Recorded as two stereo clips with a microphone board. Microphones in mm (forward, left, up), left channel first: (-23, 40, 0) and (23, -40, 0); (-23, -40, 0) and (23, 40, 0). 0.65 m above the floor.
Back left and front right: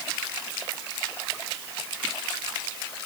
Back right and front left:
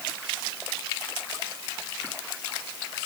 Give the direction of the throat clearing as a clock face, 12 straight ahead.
I don't hear throat clearing.